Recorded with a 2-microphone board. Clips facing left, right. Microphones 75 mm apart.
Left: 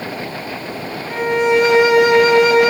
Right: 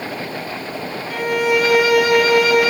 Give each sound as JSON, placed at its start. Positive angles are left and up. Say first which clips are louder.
{"t": 1.1, "sound": "a violin", "louder": "left 3 dB", "side_deg": 25, "distance_m": 0.8}